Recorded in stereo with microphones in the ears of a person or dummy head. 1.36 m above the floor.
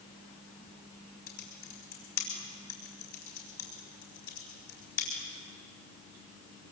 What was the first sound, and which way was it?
Typing on a keyboard, 65° left (ahead or behind).